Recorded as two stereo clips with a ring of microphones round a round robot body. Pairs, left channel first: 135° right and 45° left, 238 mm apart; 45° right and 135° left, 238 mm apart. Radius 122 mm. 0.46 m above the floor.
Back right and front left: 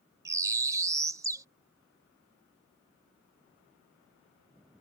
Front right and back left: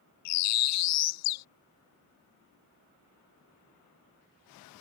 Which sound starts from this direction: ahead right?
A bird, at 0.2 s.